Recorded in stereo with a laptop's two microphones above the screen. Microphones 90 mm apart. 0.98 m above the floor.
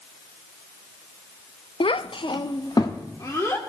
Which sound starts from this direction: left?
A child speaking, at 1.8 s.